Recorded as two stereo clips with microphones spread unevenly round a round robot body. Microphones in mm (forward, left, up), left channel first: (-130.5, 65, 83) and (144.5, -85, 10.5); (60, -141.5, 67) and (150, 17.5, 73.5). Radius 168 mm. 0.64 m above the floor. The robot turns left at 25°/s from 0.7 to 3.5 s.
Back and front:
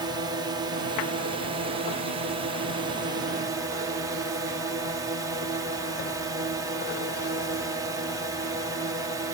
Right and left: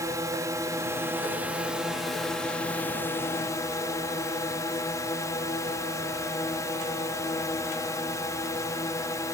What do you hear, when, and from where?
0.0 s a drone: 5° left; by 9.3 s 65° right